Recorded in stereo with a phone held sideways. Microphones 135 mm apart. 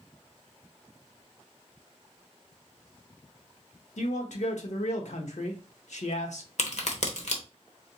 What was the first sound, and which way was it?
A man speaking, 70° left (ahead or behind).